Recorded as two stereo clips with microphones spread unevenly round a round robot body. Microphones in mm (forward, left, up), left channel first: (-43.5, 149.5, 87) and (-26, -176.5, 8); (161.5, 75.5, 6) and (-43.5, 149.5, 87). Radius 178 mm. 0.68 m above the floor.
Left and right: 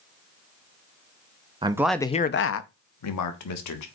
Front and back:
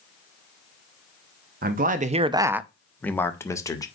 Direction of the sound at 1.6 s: 140° right.